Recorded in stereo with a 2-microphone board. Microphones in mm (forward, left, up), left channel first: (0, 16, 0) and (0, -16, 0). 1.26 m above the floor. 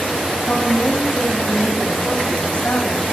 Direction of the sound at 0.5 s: 40° left (ahead or behind).